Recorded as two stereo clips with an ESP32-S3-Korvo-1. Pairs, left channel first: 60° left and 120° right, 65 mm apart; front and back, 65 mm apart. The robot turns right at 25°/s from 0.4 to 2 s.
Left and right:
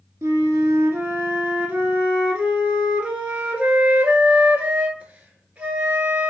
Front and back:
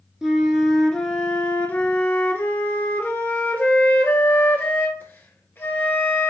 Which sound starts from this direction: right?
A flute, at 0.2 s.